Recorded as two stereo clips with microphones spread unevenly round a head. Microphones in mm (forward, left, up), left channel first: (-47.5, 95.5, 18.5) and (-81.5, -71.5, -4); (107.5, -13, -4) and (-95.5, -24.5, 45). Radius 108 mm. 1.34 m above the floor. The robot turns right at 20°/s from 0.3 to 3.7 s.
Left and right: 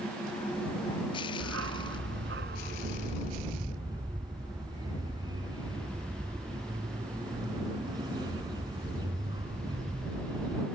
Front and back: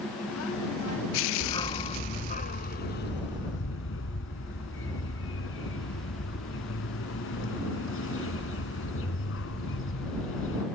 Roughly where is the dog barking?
Right.